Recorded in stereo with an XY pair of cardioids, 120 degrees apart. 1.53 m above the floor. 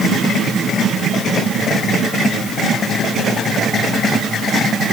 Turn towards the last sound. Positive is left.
No sound to turn to.